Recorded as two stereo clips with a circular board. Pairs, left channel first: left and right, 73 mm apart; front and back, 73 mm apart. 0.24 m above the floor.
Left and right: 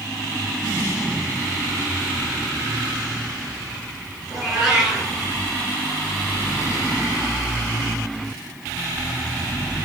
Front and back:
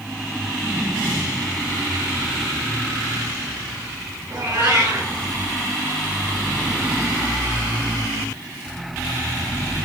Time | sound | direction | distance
4.3 | a cat meowing | 170° right | 1.7 m